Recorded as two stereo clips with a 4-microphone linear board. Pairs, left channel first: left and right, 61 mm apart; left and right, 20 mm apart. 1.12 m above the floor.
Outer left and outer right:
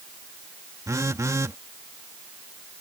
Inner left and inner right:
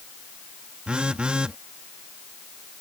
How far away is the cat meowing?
No cat meowing in this recording.